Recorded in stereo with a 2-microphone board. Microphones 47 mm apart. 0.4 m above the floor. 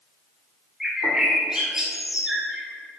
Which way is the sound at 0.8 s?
15° right (ahead or behind).